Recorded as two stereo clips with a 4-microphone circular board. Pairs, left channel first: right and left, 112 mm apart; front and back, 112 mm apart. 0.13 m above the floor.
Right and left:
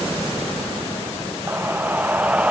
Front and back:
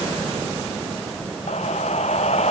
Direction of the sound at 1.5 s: 15° left.